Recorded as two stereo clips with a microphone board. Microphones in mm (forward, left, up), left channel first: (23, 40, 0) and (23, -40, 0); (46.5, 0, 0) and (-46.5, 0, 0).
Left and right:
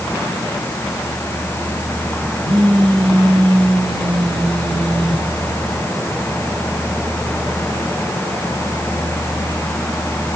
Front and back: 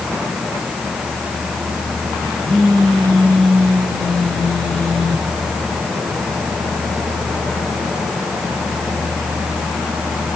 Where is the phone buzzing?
90° right, 9 m.